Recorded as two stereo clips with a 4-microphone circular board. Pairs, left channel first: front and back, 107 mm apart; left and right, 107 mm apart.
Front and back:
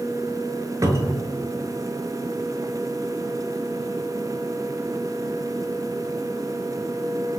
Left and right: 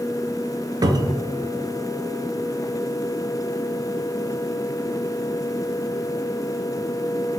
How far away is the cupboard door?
About 0.6 m.